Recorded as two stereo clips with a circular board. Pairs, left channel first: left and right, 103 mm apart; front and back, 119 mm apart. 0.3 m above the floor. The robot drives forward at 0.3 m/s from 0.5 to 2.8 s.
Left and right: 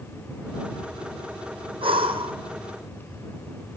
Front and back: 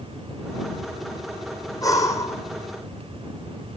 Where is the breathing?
60° right, 2 m; by 2.4 s 65° right, 2 m.